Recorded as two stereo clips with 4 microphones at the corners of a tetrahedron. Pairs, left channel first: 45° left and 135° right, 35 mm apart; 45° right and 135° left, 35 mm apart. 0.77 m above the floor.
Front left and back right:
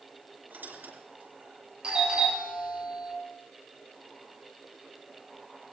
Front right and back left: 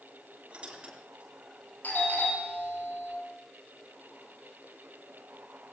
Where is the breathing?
No breathing in this recording.